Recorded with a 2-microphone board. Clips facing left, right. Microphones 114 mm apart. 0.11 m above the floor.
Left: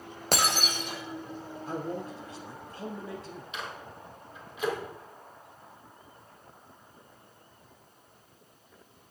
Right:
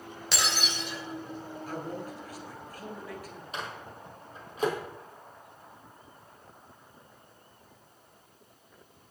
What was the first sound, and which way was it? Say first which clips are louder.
Breaking glass: left 4 dB; 45° left (ahead or behind).